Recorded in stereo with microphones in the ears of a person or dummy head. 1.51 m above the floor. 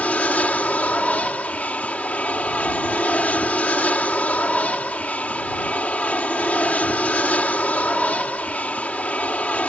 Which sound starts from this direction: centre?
An aircraft, at 0.0 s.